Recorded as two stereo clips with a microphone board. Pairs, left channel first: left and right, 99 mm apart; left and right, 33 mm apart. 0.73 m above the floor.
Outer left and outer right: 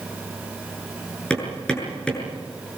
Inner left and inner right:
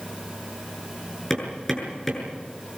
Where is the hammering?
10° left (ahead or behind), 7.5 m.